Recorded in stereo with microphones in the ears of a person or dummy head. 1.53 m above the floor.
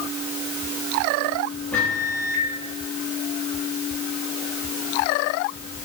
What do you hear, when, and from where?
1.7 s a microwave: 5° left (ahead or behind), 2.5 m